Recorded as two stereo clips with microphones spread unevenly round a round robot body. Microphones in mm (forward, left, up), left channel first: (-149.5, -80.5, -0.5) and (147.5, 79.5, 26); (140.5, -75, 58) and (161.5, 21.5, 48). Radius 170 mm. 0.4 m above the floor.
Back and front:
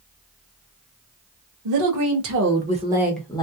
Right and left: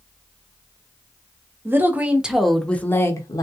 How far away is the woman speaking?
About 1.2 m.